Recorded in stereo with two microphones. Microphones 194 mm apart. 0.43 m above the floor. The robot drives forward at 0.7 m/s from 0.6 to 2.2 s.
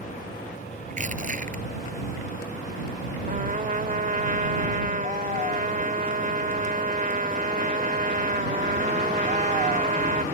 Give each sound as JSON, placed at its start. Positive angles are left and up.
{"t": 0.9, "sound": "crushing", "side_deg": -40}
{"t": 3.3, "sound": "a trumpet", "side_deg": -45}